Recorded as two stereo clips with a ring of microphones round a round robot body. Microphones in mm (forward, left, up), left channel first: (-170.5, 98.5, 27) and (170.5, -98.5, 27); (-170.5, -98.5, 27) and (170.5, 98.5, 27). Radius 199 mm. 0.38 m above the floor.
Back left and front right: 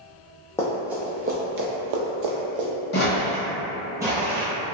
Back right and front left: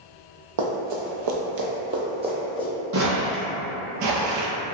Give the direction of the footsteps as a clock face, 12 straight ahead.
9 o'clock.